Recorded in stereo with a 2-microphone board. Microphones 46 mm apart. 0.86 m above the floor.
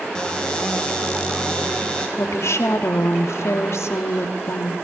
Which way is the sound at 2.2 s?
70° left (ahead or behind).